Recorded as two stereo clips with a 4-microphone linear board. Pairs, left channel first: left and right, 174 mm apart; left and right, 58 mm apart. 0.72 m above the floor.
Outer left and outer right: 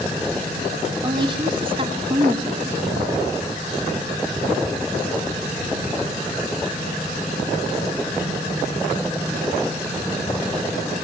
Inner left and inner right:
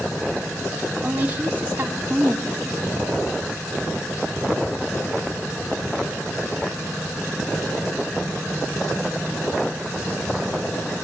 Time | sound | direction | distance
1.0 | a woman speaking | 25° right (ahead or behind) | 2.5 m